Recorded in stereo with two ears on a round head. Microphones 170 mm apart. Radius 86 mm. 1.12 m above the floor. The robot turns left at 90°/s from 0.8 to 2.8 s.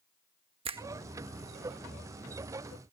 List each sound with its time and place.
0.7 s a finger snap: 30° right (ahead or behind); by 0.8 s 25° right (ahead or behind)